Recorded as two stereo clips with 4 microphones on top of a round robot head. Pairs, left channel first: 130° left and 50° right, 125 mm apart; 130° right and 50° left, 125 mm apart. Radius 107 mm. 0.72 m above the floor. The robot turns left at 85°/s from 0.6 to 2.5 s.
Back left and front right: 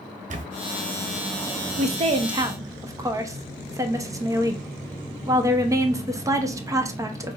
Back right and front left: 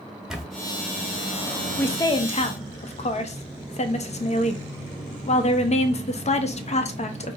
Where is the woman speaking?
50° right, 0.8 m; by 7.4 s 115° right, 0.8 m.